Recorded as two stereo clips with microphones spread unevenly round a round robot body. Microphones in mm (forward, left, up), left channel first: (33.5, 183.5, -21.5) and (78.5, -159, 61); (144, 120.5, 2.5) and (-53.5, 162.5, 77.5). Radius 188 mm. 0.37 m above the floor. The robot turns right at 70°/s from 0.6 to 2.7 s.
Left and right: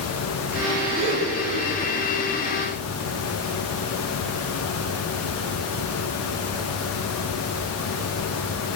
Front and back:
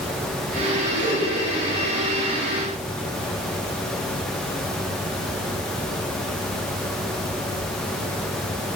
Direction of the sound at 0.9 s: 165° right.